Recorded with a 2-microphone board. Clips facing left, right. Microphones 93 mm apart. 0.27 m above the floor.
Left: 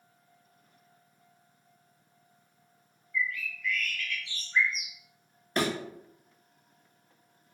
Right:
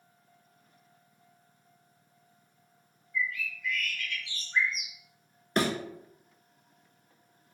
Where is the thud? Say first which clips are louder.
Right 1 dB; 35° right (ahead or behind), 0.7 m.